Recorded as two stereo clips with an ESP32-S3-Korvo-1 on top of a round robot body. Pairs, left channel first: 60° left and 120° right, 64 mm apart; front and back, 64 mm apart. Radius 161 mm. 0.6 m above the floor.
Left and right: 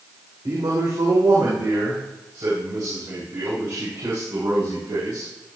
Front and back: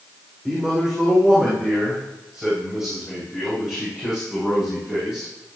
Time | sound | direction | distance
0.5 | a man speaking | 100° right | 3 m